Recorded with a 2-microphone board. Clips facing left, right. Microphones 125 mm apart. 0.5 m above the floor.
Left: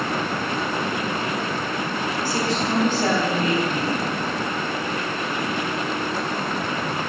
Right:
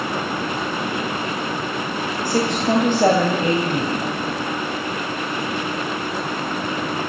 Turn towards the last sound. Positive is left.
turn(degrees=-60)  # may be behind; listen again after turning